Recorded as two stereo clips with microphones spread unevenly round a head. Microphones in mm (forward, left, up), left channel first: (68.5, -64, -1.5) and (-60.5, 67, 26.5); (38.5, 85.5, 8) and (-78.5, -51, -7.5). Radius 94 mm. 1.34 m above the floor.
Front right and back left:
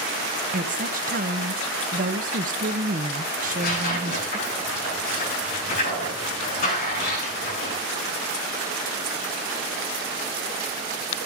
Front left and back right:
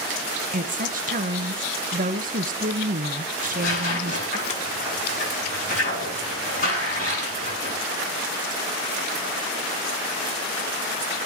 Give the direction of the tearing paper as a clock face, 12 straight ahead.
12 o'clock.